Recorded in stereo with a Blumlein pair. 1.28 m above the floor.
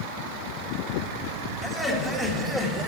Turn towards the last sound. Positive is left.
turn(degrees=-10)